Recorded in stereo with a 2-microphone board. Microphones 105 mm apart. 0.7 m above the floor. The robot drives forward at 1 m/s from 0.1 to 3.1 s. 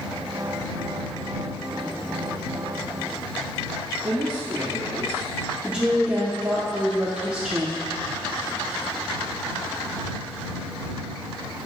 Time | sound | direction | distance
4.0 | a man speaking | 40° right (ahead or behind) | 1.4 m
5.6 | a woman speaking | 10° right (ahead or behind) | 1.0 m